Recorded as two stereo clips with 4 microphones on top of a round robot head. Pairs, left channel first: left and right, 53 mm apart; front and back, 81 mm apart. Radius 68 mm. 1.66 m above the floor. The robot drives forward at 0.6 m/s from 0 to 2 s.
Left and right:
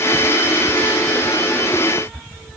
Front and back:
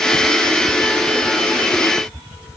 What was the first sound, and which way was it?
Only background noise.